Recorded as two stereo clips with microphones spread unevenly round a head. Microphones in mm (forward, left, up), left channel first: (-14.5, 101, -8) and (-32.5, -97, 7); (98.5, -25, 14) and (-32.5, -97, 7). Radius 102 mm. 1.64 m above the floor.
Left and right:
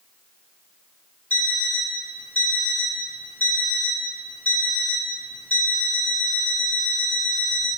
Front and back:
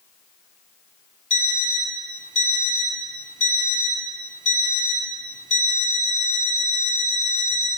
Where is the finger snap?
I don't hear a finger snap.